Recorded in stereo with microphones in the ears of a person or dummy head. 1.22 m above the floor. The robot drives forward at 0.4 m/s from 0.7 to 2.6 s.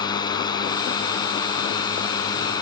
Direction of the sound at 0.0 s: 25° left (ahead or behind).